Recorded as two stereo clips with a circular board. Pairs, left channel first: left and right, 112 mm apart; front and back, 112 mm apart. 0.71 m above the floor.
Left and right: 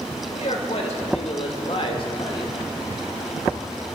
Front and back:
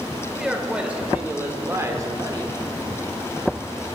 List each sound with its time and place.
0.3 s a man speaking: 95° left, 2.5 m; by 2.6 s 135° left, 1.8 m